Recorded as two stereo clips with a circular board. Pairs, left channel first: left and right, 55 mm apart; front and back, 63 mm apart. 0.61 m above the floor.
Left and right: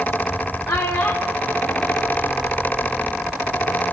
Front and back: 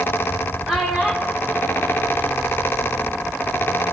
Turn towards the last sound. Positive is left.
turn(degrees=115)